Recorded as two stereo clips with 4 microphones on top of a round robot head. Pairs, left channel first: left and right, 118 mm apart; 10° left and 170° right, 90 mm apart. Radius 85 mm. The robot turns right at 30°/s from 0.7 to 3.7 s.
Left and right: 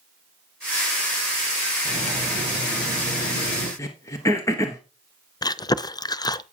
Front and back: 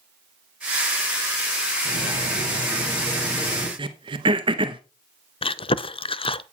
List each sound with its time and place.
1.9 s cutlery clinking: 10° left, 5 m; by 3.7 s 65° left, 5 m
3.8 s throat clearing: 160° left, 1.2 m
5.4 s chewing: 30° left, 0.6 m